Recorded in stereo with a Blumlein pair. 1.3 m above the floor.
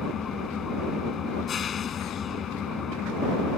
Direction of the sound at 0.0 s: 25° left.